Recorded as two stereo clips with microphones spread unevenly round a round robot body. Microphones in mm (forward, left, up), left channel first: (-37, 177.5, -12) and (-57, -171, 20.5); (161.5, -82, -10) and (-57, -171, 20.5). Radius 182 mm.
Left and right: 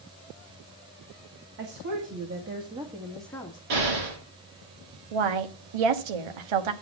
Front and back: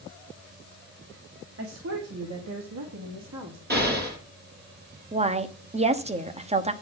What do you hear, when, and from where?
1.6 s a woman speaking: 130° right, 2.5 m; by 3.6 s 160° left, 1.9 m
3.7 s an explosion: 110° right, 8 m
5.1 s a woman speaking: 90° right, 1.2 m